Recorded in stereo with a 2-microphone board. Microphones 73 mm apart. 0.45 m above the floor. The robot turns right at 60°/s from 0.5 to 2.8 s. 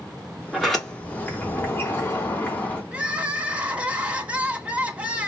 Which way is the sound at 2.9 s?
20° right (ahead or behind).